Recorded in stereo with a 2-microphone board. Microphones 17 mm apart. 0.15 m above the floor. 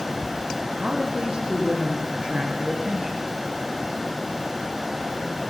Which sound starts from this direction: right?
A man speaking, at 0.7 s.